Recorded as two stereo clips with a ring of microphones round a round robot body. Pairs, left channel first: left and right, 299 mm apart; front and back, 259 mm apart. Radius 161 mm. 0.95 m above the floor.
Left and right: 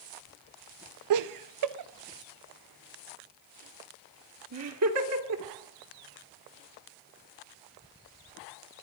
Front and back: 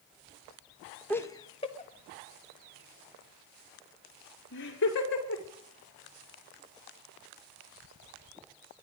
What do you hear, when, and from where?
1.1 s laughter: 85° right, 0.8 m; by 5.4 s 50° right, 3 m